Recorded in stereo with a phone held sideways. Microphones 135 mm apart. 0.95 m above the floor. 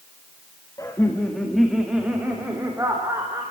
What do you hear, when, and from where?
0.8 s laughter: 25° left (ahead or behind), 1.8 m; by 3.4 s 25° right (ahead or behind), 4.5 m